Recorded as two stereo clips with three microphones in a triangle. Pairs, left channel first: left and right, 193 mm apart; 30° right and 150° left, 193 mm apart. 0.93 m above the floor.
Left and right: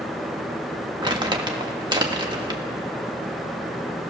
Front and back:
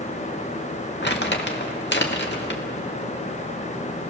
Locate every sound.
1.0 s crumpling: 25° right, 1.9 m